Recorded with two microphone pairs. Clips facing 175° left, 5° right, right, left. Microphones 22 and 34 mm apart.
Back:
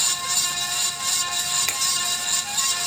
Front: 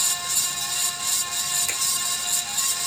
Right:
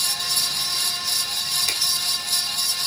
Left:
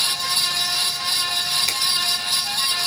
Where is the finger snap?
165° left, 1.8 m.